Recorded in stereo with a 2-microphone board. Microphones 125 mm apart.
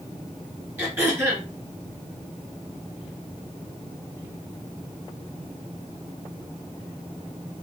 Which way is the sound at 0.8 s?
15° right (ahead or behind).